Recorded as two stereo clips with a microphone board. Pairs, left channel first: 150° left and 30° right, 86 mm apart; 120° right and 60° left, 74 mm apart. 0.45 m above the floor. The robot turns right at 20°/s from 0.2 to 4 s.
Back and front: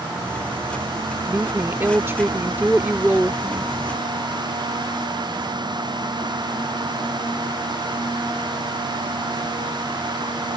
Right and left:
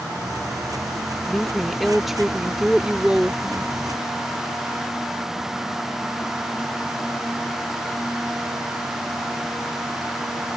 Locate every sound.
1.3 s a woman speaking: 40° right; by 3.7 s 10° left